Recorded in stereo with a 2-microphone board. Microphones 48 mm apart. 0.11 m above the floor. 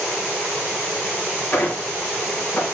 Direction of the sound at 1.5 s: 55° left (ahead or behind).